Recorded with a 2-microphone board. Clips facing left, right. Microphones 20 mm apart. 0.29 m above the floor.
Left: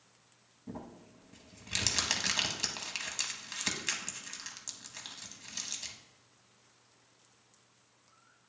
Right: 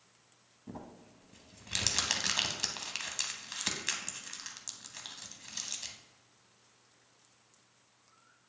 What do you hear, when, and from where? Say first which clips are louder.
0.7 s crumpling: left 2 dB; 5° right (ahead or behind), 0.8 m